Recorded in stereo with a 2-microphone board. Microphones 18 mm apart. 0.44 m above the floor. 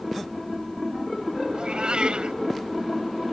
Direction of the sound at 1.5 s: 65° right (ahead or behind).